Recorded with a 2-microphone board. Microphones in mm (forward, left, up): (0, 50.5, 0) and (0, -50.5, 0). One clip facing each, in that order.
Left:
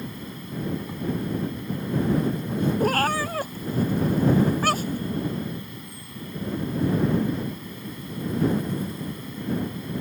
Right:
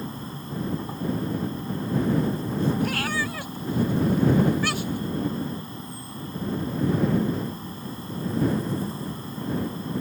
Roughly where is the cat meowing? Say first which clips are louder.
Left 4 dB; left.